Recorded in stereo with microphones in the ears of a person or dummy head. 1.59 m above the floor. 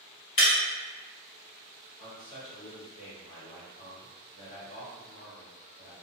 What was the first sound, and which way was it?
Breaking glass, 35° left (ahead or behind).